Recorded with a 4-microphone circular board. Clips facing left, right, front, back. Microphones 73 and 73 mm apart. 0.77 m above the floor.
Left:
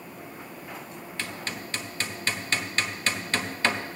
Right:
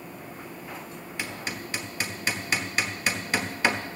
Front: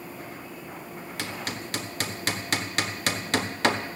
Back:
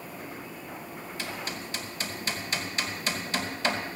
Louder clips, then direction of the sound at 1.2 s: Right 1 dB, front 2 dB; 10° right.